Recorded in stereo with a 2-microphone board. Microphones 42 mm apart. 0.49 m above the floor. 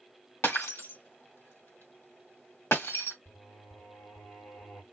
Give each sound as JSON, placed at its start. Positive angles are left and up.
{"t": 0.4, "sound": "breaking glass", "side_deg": 80, "distance_m": 1.5}
{"t": 3.2, "sound": "singing", "side_deg": 55, "distance_m": 2.5}